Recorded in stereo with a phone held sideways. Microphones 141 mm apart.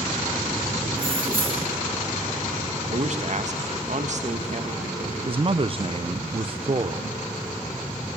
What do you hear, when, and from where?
0.9 s keys jangling: 40° right (ahead or behind), 1.6 m
2.9 s a man speaking: 55° right (ahead or behind), 1.4 m
5.3 s a man speaking: 40° right (ahead or behind), 0.6 m